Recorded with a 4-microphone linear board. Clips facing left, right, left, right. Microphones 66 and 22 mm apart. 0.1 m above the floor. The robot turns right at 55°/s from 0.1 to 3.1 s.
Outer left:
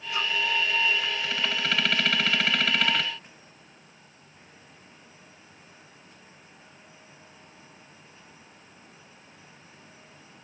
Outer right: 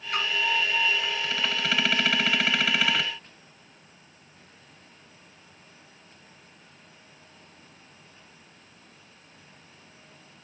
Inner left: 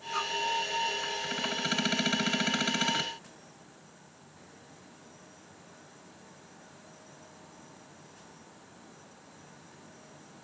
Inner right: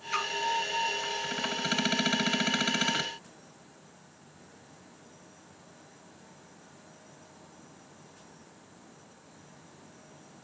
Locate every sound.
0.1 s a splash: 55° right (ahead or behind), 8 m; by 0.3 s 65° right (ahead or behind), 8 m